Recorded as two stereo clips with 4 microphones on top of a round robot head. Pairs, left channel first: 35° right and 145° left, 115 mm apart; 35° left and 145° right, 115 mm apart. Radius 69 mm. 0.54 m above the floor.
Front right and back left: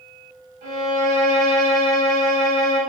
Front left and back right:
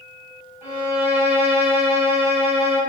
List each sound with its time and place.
0.6 s a violin: 145° left, 1.9 m